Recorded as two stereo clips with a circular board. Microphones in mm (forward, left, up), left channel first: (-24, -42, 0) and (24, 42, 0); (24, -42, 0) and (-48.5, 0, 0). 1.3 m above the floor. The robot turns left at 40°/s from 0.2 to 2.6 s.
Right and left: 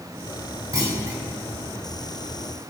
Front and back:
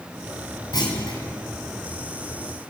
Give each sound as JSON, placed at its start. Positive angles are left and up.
{"t": 0.7, "sound": "a clunk", "azimuth_deg": 0, "distance_m": 3.5}